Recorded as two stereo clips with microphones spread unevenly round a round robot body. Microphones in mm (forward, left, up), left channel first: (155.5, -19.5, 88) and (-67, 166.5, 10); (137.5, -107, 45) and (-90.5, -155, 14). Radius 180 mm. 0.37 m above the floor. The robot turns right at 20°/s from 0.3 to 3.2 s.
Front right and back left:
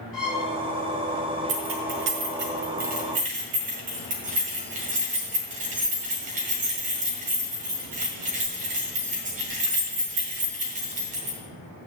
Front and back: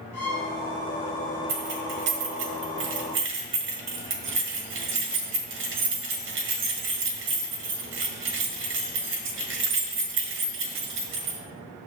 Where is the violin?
60° left, 3.5 m; by 0.5 s 65° left, 3.5 m.